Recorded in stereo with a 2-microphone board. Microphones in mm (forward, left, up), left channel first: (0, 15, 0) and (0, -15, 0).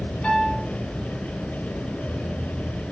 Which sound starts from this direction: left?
A piano, at 0.2 s.